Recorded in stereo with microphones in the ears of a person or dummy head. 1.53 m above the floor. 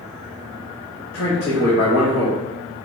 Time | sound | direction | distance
1.1 | a man speaking | 55° left (ahead or behind) | 1.1 m